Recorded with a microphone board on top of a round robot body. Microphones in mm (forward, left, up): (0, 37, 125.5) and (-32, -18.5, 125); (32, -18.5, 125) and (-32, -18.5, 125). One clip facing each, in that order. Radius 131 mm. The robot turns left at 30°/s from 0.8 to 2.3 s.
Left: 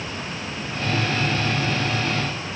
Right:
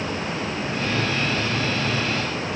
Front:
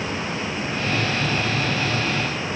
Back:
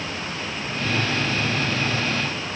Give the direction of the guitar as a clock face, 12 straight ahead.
I don't hear a guitar.